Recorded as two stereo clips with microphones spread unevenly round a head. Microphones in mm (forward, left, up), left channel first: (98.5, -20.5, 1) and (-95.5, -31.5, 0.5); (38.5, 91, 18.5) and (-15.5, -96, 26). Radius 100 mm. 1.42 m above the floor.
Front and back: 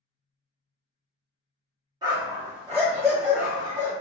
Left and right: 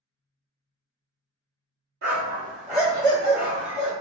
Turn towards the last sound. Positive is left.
turn(degrees=160)